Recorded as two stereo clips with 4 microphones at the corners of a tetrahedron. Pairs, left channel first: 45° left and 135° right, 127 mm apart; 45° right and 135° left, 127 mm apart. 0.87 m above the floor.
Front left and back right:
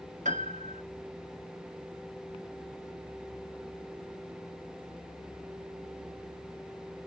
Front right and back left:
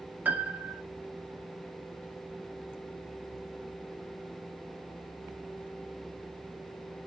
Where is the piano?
150° right, 0.6 m.